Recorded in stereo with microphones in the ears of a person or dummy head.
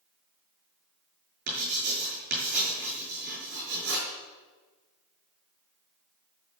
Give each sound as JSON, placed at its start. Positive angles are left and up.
{"t": 1.5, "sound": "writing", "side_deg": -55, "distance_m": 7.0}